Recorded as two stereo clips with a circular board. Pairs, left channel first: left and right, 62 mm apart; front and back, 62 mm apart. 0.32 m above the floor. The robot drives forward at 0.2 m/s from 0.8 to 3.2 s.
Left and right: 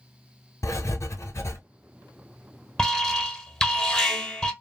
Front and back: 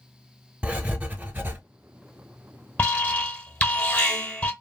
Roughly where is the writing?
Behind left.